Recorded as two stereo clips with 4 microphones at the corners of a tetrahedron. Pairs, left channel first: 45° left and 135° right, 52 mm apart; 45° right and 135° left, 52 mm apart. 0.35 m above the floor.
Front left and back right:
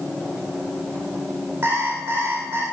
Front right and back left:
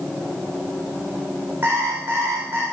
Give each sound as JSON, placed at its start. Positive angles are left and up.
{"t": 1.6, "sound": "an alarm clock", "azimuth_deg": -170, "distance_m": 7.5}